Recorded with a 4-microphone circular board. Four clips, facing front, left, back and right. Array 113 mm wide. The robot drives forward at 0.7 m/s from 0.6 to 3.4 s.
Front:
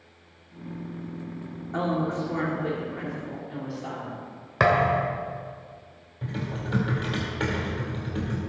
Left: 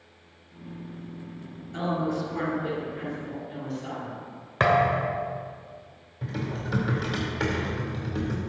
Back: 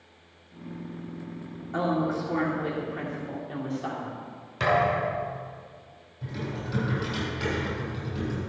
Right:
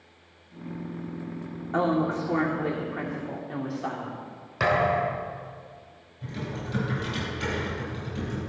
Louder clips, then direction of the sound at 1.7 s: Right 3 dB, even; 90° right.